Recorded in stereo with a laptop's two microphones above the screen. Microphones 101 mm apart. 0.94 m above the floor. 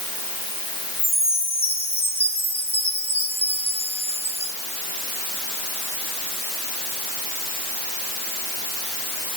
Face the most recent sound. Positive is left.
turn(degrees=85)